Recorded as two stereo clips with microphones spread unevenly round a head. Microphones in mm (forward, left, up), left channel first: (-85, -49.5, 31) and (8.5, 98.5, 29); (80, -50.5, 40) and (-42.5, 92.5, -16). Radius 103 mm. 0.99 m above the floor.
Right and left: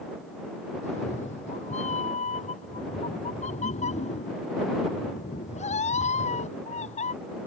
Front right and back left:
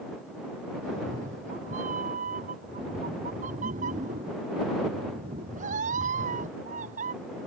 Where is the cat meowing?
175° right.